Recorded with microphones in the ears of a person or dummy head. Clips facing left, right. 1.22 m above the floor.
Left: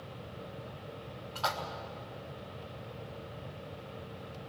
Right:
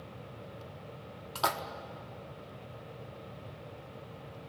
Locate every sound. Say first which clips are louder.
1.4 s a splash: right 2 dB; 55° right (ahead or behind), 1.0 m